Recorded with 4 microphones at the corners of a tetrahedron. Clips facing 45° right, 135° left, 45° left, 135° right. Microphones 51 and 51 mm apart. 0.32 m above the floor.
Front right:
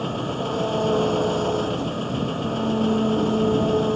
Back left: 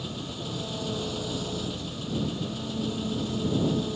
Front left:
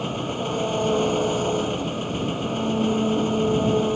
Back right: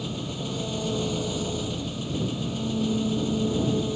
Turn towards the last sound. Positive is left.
turn(degrees=0)